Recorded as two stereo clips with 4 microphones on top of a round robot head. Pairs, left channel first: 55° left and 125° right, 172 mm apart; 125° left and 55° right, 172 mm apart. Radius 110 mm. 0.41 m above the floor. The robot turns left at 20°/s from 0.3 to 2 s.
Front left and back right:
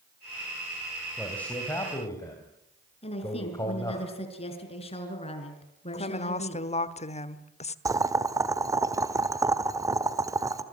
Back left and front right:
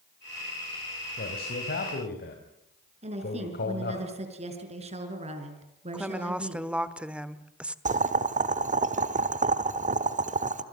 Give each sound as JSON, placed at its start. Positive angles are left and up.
{"t": 1.2, "sound": "a man speaking", "azimuth_deg": 140, "distance_m": 3.5}
{"t": 3.0, "sound": "a woman speaking", "azimuth_deg": 0, "distance_m": 5.0}
{"t": 5.9, "sound": "a woman speaking", "azimuth_deg": 25, "distance_m": 1.4}
{"t": 7.8, "sound": "boiling", "azimuth_deg": -60, "distance_m": 1.4}